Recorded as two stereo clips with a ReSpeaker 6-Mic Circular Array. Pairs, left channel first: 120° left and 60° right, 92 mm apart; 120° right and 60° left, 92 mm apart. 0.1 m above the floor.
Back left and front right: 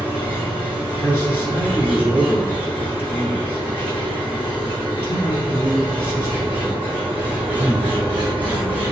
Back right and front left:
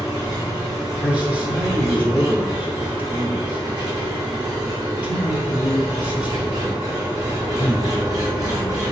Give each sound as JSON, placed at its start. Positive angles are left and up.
{"t": 0.0, "sound": "an engine running", "azimuth_deg": 15, "distance_m": 1.9}
{"t": 1.0, "sound": "a man speaking", "azimuth_deg": 110, "distance_m": 1.3}